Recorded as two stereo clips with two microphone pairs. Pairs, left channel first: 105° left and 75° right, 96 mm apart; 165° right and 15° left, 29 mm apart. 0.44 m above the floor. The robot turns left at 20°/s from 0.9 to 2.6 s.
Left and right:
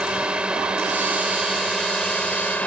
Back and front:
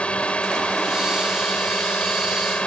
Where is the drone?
150° right; by 2.7 s 175° left.